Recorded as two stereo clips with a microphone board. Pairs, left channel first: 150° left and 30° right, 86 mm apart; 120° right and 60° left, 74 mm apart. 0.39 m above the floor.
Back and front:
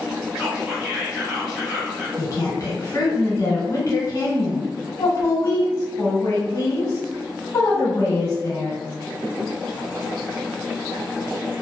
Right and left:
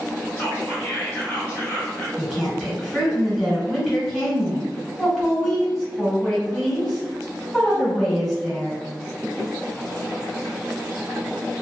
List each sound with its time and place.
0.4 s whispering: 110° right, 1.0 m
2.2 s a woman speaking: 160° left, 1.2 m